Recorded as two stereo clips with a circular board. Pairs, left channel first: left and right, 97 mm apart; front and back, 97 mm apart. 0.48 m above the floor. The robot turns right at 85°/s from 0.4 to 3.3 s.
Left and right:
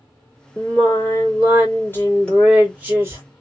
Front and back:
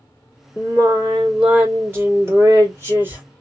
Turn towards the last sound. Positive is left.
turn(degrees=-110)